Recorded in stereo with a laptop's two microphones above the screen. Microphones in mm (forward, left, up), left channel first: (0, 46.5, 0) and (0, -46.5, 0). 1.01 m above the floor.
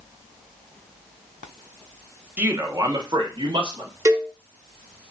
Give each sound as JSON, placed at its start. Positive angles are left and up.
{"t": 2.4, "sound": "a man speaking", "side_deg": -20, "distance_m": 0.7}
{"t": 4.0, "sound": "a cowbell", "side_deg": -30, "distance_m": 0.7}